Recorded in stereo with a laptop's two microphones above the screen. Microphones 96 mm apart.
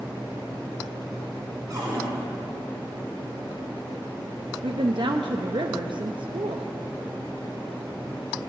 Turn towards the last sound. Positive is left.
turn(degrees=-60)  # may be behind; listen again after turning